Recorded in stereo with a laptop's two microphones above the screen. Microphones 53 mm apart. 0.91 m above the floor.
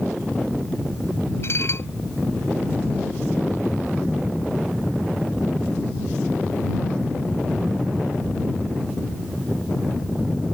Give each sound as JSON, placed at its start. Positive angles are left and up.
{"t": 1.4, "sound": "dishes clattering", "side_deg": 55}